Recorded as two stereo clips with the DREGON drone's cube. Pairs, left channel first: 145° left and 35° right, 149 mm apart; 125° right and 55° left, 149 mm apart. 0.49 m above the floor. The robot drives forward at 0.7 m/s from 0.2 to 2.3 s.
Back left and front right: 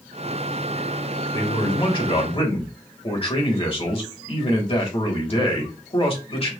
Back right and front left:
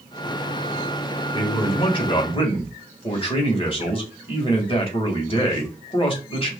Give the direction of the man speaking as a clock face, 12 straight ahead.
5 o'clock.